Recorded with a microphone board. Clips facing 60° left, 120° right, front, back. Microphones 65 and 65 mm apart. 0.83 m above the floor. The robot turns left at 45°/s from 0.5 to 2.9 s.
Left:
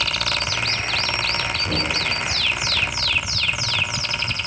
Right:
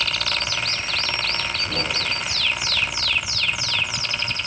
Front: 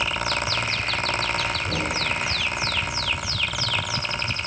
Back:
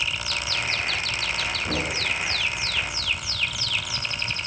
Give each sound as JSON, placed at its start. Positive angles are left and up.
{"t": 1.6, "sound": "knocking", "azimuth_deg": 130, "distance_m": 8.0}